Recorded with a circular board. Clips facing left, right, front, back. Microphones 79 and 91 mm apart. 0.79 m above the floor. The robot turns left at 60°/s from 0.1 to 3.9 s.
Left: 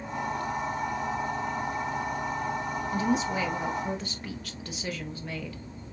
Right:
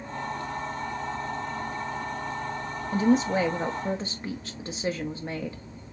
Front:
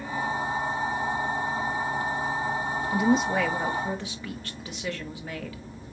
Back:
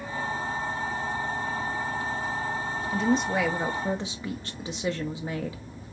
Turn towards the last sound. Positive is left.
turn(degrees=-125)